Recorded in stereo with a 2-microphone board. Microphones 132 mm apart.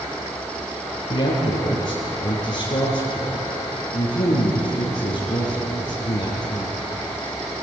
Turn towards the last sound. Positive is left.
turn(degrees=55)  # may be behind; listen again after turning